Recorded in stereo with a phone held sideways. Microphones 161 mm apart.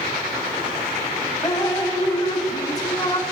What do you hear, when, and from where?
1.4 s dripping: 20° left (ahead or behind), 0.7 m